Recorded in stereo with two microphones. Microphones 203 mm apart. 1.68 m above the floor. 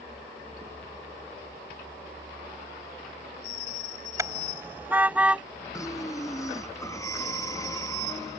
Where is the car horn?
15° right (ahead or behind); by 5.4 s 5° right (ahead or behind).